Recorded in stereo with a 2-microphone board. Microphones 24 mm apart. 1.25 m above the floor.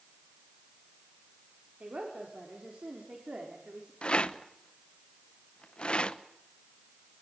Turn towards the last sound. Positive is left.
turn(degrees=50)  # may be behind; listen again after turning